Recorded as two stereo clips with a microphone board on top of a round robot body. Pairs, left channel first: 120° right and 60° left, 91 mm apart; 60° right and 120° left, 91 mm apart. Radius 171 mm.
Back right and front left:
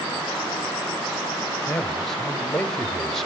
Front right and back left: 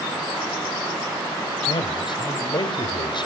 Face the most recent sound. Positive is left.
turn(degrees=-35)